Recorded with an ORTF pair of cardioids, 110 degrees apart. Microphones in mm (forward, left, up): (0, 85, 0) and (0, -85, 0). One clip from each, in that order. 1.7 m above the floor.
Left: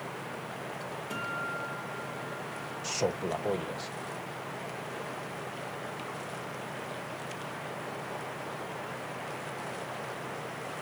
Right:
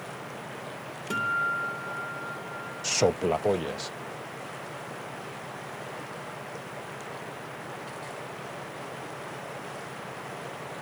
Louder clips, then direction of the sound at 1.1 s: Right 9 dB; 65° right.